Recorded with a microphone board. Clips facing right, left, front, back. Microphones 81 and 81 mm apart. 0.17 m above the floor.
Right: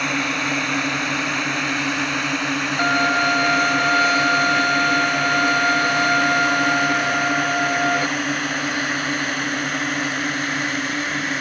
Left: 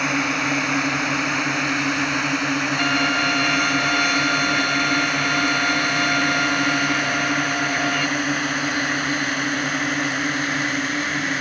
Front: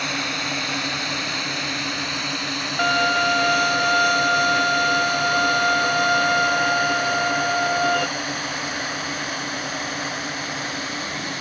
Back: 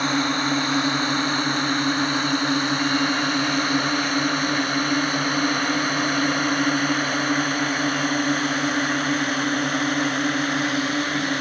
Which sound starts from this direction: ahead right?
A violin, at 2.8 s.